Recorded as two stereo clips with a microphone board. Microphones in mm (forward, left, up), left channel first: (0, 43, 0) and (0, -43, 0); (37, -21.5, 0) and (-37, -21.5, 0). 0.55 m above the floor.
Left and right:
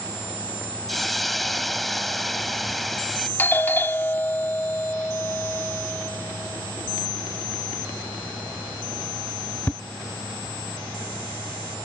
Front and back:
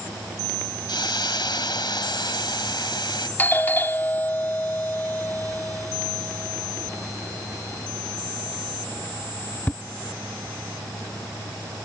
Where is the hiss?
Straight ahead.